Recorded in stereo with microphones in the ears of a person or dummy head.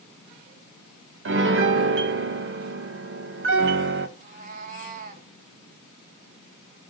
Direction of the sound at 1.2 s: 55° right (ahead or behind).